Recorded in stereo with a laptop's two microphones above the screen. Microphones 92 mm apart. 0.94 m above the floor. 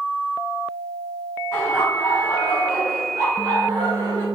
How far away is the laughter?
About 1.3 m.